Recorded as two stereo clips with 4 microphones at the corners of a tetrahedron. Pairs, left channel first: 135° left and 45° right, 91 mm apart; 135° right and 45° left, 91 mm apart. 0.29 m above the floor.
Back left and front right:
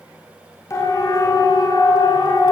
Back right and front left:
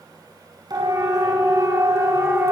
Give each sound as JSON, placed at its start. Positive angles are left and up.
{"t": 0.7, "sound": "a siren", "azimuth_deg": 80, "distance_m": 6.0}